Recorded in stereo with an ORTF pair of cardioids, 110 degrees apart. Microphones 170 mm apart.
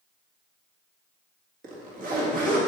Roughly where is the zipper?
Ahead right.